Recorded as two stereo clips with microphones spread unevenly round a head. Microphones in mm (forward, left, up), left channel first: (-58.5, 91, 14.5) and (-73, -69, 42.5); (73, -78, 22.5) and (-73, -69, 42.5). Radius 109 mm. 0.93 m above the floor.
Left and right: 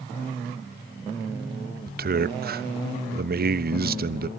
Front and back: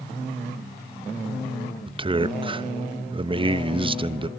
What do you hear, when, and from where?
1.9 s a man speaking: 125° right, 1.0 m